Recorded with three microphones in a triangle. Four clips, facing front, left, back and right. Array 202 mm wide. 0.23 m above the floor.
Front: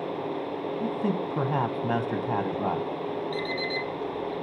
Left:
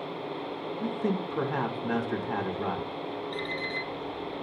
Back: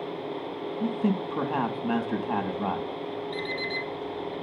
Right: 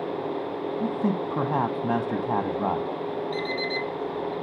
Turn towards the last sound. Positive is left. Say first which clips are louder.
# right 5 dB, front 2 dB
turn(degrees=-30)